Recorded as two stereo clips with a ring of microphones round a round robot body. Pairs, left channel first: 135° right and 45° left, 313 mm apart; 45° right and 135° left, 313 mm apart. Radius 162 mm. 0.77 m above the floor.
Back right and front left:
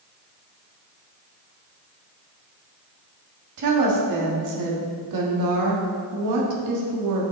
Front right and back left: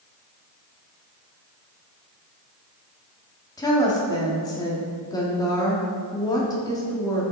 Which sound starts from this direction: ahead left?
A woman speaking, at 3.6 s.